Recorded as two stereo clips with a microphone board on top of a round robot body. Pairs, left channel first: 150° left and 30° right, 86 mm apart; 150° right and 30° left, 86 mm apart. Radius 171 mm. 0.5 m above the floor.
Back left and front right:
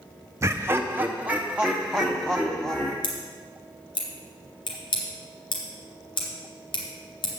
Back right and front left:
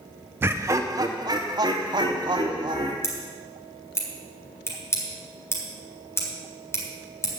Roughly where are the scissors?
Behind left.